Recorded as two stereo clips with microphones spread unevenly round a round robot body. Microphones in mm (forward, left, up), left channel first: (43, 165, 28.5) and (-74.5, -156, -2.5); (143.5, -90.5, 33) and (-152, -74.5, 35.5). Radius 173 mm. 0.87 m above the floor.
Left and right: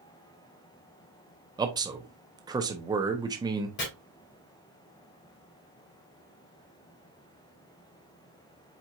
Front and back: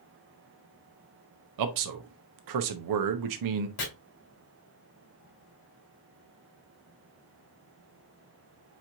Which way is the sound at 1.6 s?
175° left.